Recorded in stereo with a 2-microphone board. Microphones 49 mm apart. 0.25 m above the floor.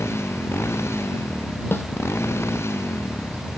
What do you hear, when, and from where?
0.0 s a motorcycle: 65° left (ahead or behind)
1.7 s a snare drum: 50° left (ahead or behind)